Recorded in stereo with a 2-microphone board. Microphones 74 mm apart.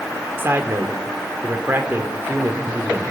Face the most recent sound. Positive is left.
turn(degrees=-35)  # may be behind; listen again after turning